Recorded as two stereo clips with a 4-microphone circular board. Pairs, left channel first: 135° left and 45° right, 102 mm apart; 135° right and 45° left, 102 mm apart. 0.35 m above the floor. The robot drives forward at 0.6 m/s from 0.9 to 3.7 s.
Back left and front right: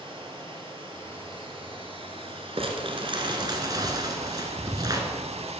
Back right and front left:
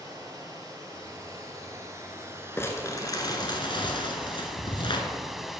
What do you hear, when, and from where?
0.0 s running water: 10° right, 2 m; by 5.6 s 45° right, 0.6 m
2.6 s crumpling: 70° right, 1.4 m; by 5.0 s 100° right, 1.3 m